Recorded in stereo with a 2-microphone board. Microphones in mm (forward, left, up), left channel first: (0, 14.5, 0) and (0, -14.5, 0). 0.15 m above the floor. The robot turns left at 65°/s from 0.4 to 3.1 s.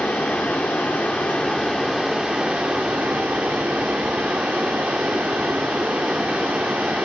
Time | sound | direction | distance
0.0 | running water | 110° left | 2 m